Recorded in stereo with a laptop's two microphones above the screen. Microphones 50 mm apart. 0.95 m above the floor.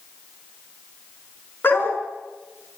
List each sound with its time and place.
1.6 s a dog barking: 45° left (ahead or behind), 5 m